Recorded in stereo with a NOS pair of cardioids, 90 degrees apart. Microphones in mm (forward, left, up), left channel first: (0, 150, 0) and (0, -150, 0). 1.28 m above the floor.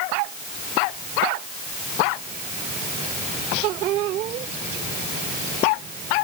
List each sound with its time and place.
Only background noise.